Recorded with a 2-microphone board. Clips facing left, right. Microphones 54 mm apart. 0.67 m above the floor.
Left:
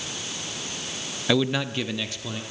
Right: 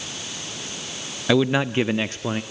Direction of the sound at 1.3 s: 10° right (ahead or behind).